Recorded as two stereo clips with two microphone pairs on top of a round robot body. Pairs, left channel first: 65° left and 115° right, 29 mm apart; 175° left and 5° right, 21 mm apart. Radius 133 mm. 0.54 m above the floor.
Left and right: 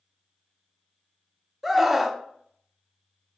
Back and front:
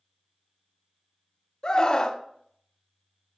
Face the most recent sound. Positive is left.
turn(degrees=155)